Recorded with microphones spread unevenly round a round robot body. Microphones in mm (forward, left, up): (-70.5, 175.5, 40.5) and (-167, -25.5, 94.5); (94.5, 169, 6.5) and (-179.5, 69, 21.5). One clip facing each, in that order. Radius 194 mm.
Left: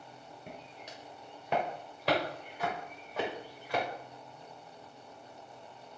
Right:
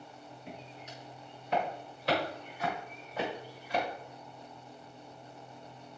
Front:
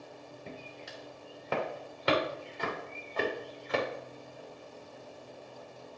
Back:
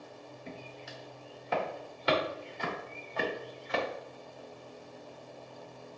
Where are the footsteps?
10° left, 5 m; by 3.8 s 5° left, 7 m.